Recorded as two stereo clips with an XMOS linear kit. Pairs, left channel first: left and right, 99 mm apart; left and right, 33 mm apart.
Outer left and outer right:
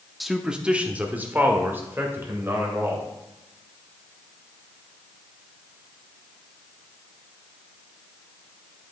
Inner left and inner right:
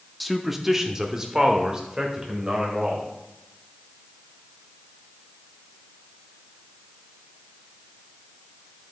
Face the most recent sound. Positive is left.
turn(degrees=-25)  # may be behind; listen again after turning